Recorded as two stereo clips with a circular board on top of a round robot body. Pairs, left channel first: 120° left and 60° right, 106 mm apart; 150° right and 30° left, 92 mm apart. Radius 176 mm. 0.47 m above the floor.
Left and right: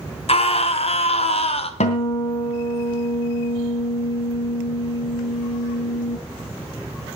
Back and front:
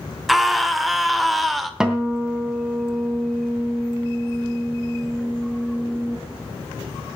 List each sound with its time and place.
0.3 s a scream: 120° left, 1.9 m
1.8 s a guitar: 115° left, 2.5 m